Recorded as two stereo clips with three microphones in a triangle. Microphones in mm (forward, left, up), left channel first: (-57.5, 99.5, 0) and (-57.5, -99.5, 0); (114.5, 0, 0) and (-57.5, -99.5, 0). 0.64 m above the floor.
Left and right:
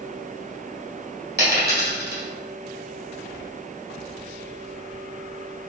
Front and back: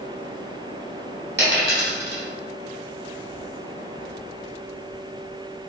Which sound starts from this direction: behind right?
A dropped coin, at 1.4 s.